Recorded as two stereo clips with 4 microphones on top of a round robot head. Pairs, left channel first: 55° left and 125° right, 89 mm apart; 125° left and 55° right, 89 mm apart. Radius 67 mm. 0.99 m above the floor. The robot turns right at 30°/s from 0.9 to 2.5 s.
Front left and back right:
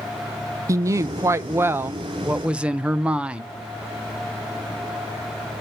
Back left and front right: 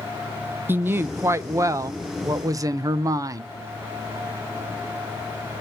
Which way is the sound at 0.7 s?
105° right.